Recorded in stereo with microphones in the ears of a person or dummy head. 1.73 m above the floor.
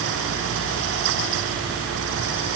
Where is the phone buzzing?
I don't hear a phone buzzing.